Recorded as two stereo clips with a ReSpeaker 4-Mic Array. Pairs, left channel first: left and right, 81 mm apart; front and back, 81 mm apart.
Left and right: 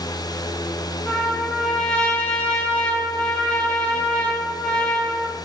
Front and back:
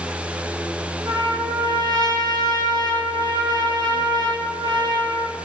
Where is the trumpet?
165° left, 0.6 m.